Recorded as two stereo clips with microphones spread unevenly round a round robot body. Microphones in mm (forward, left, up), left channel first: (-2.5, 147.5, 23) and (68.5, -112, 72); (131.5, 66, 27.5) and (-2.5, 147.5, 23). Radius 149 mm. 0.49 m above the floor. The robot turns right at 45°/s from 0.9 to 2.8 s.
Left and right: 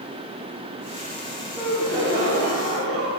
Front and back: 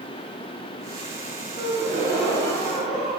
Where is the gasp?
150° right, 3 m; by 3.1 s 95° right, 3 m.